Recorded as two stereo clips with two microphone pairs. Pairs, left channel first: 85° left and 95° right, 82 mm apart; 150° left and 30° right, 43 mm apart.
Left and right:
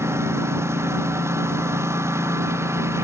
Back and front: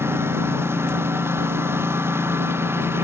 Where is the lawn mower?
40° right.